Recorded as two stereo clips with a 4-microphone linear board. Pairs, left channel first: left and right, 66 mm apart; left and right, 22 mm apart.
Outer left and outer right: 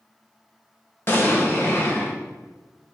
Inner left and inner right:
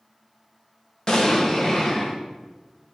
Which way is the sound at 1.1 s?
40° left (ahead or behind).